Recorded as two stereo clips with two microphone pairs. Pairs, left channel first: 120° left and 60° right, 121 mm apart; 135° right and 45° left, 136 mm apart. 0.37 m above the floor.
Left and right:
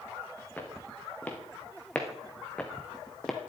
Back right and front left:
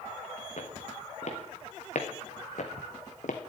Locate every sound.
0.6 s footsteps: 165° right, 3 m; by 3.4 s 150° right, 1.3 m